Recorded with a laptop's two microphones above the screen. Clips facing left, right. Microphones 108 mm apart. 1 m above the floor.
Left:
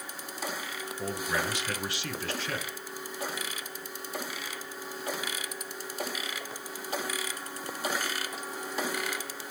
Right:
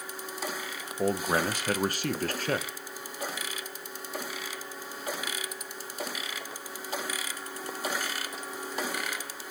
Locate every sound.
1.0 s a man speaking: 45° right (ahead or behind), 0.6 m